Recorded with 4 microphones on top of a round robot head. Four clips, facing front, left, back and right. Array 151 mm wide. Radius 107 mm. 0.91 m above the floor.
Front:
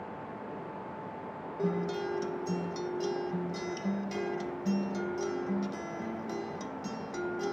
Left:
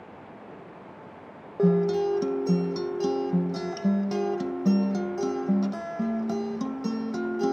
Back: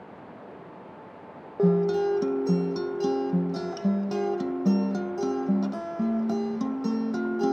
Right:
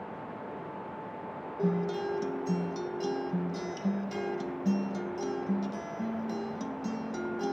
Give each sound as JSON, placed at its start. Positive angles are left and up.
{"t": 1.6, "sound": "a guitar", "azimuth_deg": 145, "distance_m": 0.6}